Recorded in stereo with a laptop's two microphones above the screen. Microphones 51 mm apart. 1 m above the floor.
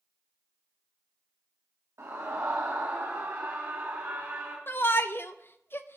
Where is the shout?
50° left (ahead or behind), 0.6 m.